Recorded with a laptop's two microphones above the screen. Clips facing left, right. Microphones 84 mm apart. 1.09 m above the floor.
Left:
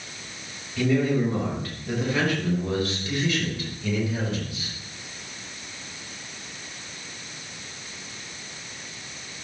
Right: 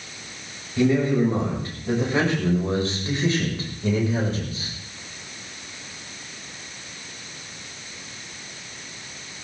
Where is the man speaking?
25° right (ahead or behind), 5.5 m; by 4.7 s 40° right (ahead or behind), 4 m.